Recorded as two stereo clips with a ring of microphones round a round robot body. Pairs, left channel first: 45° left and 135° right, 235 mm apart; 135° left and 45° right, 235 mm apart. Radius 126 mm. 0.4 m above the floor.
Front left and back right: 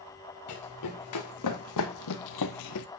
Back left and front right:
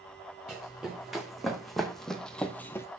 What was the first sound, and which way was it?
Running footsteps, 45° left.